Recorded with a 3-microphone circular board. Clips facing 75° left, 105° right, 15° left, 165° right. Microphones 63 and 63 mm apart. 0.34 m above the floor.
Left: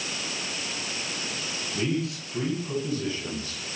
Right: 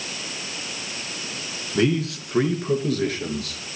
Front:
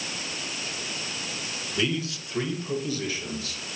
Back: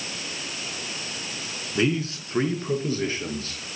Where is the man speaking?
110° right, 3.5 m; by 3.6 s 115° right, 5 m.